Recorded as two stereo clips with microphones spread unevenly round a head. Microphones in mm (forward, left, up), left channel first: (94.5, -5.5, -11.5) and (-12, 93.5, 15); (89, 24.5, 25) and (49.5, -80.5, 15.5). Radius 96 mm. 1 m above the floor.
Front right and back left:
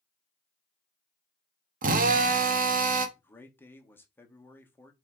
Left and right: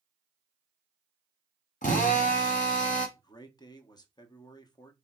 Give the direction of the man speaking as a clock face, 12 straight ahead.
11 o'clock.